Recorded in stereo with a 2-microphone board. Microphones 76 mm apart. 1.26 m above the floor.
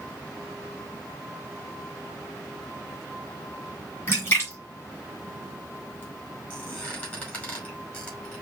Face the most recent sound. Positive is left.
turn(degrees=25)  # may be behind; listen again after turning